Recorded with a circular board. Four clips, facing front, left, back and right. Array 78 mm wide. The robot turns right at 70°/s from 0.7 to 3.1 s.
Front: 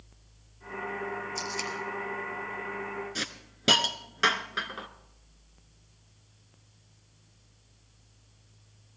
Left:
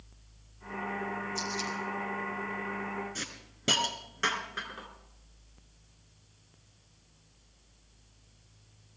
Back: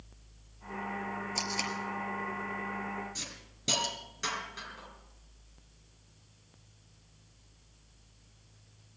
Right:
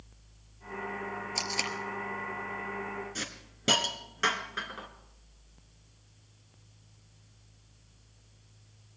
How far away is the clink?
No clink in this recording.